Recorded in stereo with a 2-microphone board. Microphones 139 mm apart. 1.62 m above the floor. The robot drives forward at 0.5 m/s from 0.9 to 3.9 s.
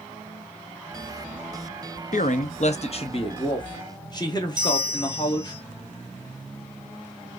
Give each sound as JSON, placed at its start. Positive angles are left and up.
{"t": 2.1, "sound": "a man speaking", "side_deg": 65, "distance_m": 0.6}
{"t": 4.6, "sound": "a bell", "side_deg": -30, "distance_m": 0.7}